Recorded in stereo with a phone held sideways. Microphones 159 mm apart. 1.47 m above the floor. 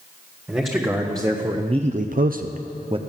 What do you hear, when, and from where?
0.5 s a man speaking: 15° right (ahead or behind), 1.5 m; by 3.0 s 35° right (ahead or behind), 0.7 m